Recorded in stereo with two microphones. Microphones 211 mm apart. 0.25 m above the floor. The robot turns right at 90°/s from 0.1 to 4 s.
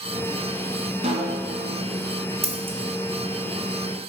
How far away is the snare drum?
About 1.8 m.